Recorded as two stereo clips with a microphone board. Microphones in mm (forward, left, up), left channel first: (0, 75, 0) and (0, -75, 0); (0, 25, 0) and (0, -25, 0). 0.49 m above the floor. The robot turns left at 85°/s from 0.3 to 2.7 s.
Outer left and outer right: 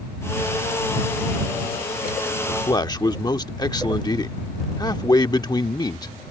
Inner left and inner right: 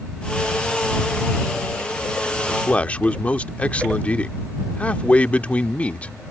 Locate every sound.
2.5 s a man speaking: 35° left (ahead or behind); by 6.1 s 25° left (ahead or behind)